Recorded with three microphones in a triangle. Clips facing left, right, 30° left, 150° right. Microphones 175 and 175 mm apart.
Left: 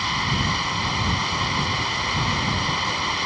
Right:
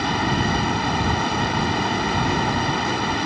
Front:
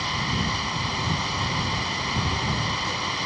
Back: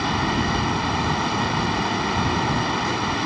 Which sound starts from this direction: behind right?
Running water, at 0.0 s.